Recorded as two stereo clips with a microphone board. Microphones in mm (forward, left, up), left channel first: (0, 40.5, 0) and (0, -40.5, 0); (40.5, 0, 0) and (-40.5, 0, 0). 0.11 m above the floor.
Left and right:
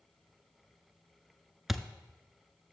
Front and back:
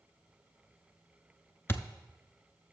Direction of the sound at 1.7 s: 5° right.